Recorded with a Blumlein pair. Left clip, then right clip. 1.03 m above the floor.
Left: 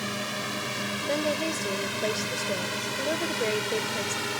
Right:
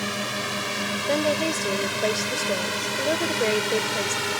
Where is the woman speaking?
10° right.